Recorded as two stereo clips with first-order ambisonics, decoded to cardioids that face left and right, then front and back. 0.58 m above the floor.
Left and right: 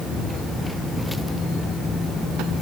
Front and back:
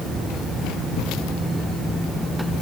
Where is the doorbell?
No doorbell in this recording.